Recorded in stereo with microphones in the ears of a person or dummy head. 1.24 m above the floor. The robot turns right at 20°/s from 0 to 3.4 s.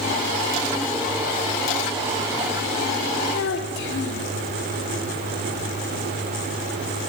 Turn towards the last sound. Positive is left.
turn(degrees=65)  # may be behind; listen again after turning